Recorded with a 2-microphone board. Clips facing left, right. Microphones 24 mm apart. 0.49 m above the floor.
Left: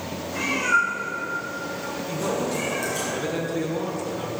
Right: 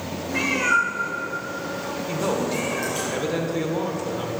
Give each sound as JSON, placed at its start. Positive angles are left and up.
{"t": 0.3, "sound": "a cat meowing", "side_deg": -60, "distance_m": 4.0}
{"t": 2.1, "sound": "a man speaking", "side_deg": -25, "distance_m": 1.5}